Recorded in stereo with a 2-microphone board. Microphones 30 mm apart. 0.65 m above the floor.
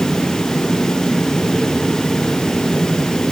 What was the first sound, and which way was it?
Only background noise.